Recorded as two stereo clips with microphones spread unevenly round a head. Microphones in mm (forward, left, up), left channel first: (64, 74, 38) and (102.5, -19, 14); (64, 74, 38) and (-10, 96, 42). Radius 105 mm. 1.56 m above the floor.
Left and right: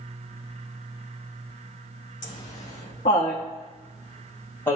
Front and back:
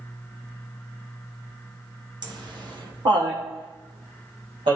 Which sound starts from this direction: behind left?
Laughter, at 2.2 s.